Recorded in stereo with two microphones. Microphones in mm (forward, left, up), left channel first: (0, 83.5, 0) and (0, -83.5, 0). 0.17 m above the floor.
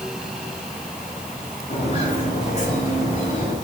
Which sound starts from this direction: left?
Footsteps, at 1.7 s.